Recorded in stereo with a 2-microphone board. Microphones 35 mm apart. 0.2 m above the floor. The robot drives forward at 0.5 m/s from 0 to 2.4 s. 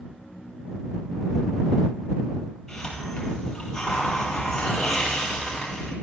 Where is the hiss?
10° left (ahead or behind), 4.5 m.